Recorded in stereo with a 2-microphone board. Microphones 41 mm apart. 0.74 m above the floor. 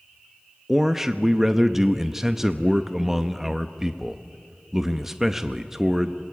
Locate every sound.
0.7 s a man speaking: 10° right (ahead or behind), 0.7 m